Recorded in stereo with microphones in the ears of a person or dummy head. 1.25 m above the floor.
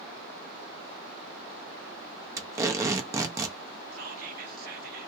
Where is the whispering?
55° right (ahead or behind), 0.8 m.